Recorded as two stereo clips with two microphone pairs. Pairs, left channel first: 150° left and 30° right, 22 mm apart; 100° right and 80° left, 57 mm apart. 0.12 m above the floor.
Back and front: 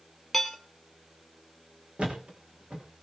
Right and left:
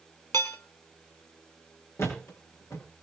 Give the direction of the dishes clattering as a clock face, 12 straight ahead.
4 o'clock.